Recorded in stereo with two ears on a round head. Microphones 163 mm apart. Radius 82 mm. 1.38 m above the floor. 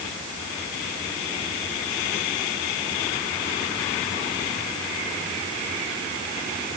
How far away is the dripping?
No dripping in this recording.